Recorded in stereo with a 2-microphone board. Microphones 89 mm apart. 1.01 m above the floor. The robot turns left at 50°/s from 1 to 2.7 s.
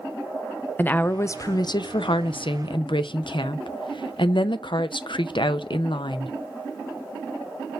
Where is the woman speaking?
155° left, 0.5 m; by 6.3 s 70° left, 0.5 m.